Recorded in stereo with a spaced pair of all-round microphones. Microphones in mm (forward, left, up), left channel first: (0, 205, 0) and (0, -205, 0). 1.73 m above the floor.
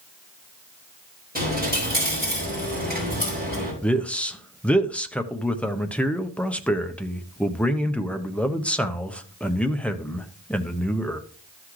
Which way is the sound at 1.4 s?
20° right (ahead or behind).